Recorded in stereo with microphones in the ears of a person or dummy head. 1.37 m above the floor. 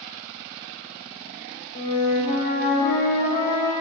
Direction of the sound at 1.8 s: 40° left (ahead or behind).